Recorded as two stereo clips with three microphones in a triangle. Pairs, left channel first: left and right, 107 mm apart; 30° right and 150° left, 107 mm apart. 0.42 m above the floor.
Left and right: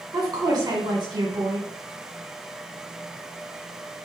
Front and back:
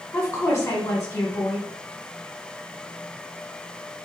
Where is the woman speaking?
75° right, 1.8 m.